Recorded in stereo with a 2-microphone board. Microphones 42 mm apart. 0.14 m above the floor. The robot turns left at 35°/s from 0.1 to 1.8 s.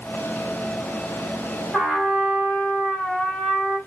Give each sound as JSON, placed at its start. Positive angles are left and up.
{"t": 1.7, "sound": "a trumpet", "side_deg": -5, "distance_m": 3.0}